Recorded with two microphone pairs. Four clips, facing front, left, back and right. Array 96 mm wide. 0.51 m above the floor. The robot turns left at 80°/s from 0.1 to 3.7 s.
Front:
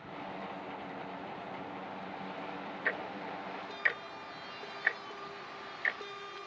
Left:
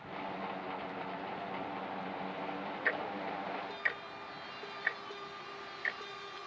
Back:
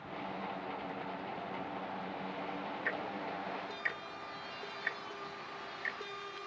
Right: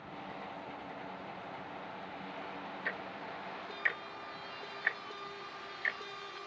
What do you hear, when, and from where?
2.9 s ticking: 60° left; by 6.0 s 5° right